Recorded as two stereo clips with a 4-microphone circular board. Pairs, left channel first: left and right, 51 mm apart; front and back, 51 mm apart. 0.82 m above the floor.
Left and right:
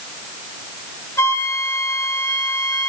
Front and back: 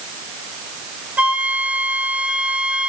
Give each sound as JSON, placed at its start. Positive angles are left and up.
{"t": 1.2, "sound": "a flute", "azimuth_deg": 110, "distance_m": 2.5}